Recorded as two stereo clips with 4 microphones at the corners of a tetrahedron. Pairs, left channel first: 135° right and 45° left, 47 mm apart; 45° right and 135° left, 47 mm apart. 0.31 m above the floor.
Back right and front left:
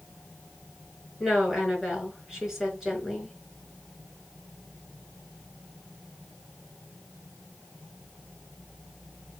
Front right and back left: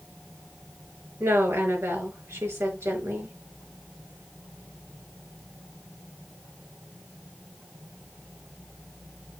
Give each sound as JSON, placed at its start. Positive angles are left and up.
{"t": 1.2, "sound": "a woman speaking", "azimuth_deg": 130, "distance_m": 5.5}